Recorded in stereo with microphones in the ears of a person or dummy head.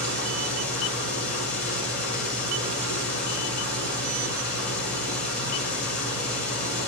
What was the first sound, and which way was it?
An engine running, 85° left.